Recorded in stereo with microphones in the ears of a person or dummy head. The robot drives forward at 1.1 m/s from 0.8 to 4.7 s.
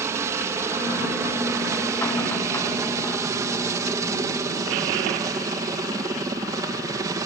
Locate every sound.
0.0 s a helicopter: 15° right (ahead or behind); by 7.3 s 20° right (ahead or behind)